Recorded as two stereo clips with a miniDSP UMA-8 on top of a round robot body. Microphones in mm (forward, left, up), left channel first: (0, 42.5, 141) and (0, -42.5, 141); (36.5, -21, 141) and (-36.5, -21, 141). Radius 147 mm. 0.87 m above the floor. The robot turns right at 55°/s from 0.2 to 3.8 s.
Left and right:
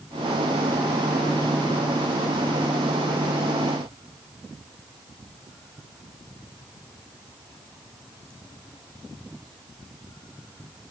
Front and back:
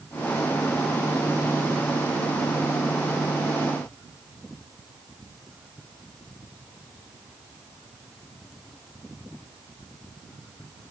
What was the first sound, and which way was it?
Only background noise.